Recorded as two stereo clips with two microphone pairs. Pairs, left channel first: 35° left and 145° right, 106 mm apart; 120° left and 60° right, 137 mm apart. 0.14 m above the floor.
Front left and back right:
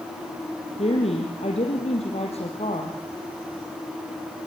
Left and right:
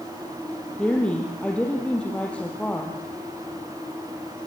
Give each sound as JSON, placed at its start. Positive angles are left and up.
{"t": 0.8, "sound": "a woman speaking", "azimuth_deg": 35, "distance_m": 4.0}